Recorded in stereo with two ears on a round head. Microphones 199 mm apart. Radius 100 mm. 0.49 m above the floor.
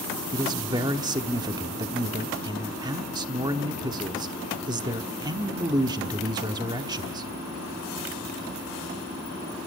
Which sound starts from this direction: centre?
A man speaking, at 0.3 s.